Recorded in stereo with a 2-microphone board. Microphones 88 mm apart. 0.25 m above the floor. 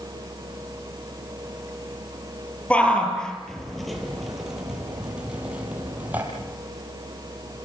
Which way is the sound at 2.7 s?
15° left (ahead or behind).